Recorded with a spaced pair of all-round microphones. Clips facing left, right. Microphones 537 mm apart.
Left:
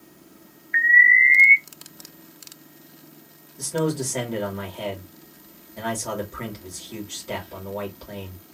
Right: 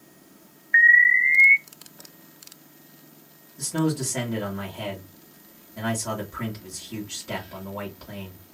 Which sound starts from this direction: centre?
An alarm, at 0.7 s.